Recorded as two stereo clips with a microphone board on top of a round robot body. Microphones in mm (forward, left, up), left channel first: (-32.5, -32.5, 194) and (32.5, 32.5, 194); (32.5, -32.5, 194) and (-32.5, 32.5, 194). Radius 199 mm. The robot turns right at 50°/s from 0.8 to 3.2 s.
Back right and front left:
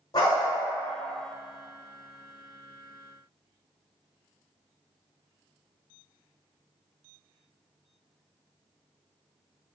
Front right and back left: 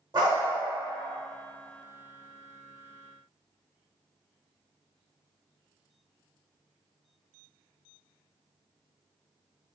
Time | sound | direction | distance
0.1 | a dog barking | 175° left | 1.1 m